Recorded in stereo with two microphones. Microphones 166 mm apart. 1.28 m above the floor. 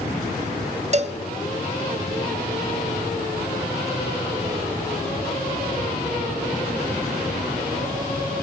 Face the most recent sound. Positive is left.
turn(degrees=-45)  # may be behind; listen again after turning